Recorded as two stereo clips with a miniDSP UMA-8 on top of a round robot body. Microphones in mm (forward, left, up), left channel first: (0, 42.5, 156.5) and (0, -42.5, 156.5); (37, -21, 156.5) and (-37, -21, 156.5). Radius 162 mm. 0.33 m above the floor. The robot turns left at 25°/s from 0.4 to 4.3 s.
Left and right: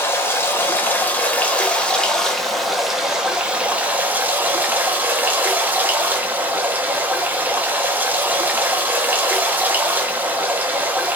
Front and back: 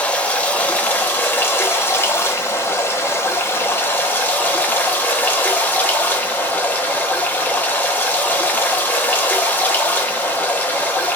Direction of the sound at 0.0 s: 55° left.